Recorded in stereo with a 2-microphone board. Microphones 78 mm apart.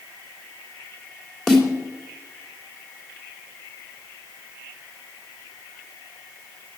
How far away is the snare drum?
About 2.5 m.